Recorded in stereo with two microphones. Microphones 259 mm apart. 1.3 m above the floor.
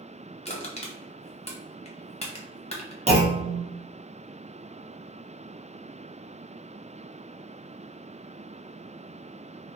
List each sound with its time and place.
0.5 s crushing: 25° left (ahead or behind), 0.7 m
3.1 s a clunk: 25° right (ahead or behind), 0.7 m